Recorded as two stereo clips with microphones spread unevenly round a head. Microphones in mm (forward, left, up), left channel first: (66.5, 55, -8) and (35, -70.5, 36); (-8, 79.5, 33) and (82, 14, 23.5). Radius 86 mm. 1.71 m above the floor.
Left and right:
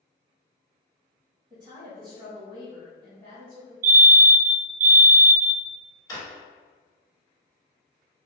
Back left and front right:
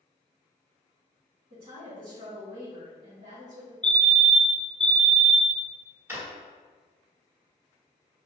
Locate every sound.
1.5 s a woman speaking: 50° right, 1.6 m
3.8 s a fire alarm: 130° right, 0.5 m
6.1 s a drawer: 5° left, 1.4 m